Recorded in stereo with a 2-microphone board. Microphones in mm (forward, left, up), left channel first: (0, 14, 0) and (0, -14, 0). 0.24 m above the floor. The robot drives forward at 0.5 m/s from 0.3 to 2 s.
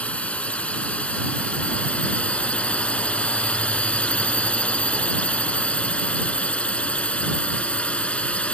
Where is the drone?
50° left (ahead or behind).